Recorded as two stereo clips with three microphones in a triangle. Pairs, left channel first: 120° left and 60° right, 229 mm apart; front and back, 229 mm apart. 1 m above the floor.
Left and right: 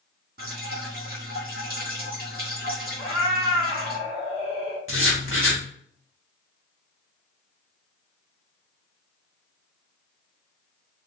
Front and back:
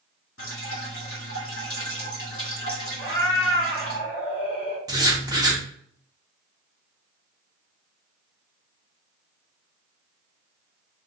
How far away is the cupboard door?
No cupboard door in this recording.